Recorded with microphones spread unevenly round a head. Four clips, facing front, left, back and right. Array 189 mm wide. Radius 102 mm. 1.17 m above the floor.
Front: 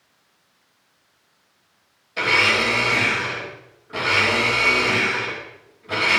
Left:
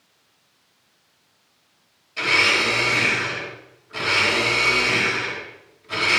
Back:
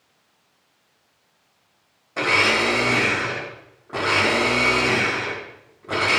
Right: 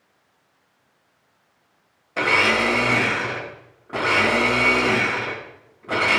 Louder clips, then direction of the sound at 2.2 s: Right 3 dB, even; 125° right.